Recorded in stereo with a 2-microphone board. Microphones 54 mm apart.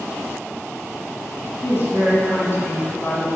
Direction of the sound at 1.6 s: 50° left (ahead or behind).